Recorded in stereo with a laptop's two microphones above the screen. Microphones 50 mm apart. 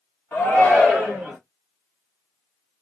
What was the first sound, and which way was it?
A shout, 45° left (ahead or behind).